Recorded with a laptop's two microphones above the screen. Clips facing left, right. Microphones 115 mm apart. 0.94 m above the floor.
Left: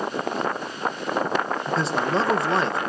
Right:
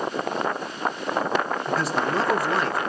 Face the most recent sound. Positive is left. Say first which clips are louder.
# left 1 dB
turn(degrees=25)  # may be behind; listen again after turning